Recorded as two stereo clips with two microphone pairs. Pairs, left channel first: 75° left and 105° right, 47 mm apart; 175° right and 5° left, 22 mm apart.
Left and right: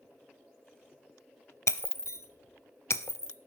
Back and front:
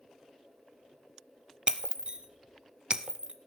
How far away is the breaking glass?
About 0.9 m.